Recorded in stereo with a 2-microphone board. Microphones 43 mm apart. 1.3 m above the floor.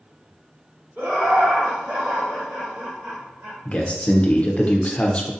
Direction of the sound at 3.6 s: 30° left (ahead or behind).